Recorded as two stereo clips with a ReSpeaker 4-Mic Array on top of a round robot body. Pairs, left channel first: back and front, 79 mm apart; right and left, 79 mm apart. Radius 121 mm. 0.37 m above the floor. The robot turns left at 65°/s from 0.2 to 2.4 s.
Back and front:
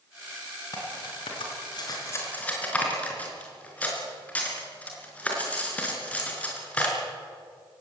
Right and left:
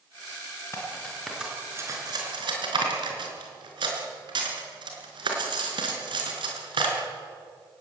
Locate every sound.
0.7 s cutlery clinking: 145° right, 5 m; by 7.0 s 105° left, 5 m